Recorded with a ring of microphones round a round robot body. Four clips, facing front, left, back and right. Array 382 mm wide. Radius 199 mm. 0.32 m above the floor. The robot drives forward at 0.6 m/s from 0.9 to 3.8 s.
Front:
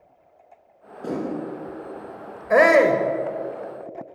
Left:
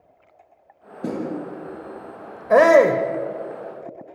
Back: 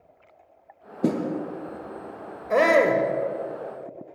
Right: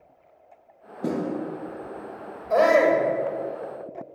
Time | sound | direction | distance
1.0 | a snare drum | straight behind | 6.5 m
2.5 | a shout | 75° left | 2 m